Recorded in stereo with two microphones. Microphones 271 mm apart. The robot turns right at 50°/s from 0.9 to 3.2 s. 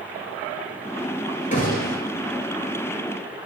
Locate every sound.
1.5 s a gunshot: 30° left (ahead or behind), 1.0 m; by 2.0 s 50° left (ahead or behind), 1.0 m